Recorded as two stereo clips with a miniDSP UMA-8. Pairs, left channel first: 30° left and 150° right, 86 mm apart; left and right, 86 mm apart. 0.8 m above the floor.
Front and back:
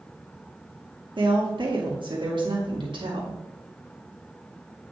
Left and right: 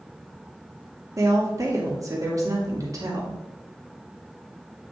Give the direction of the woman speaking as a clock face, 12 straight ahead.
5 o'clock.